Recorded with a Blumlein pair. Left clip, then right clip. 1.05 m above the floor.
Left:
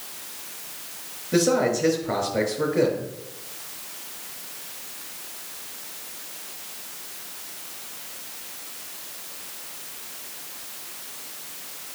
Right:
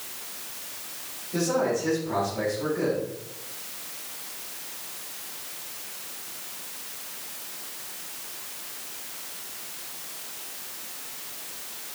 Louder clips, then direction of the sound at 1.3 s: Left 4 dB; 55° left.